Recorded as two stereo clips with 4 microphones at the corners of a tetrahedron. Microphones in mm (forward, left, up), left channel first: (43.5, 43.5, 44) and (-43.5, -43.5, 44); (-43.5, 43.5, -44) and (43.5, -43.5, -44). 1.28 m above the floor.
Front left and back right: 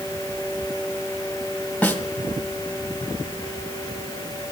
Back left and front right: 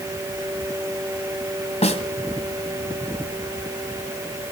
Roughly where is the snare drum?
Behind left.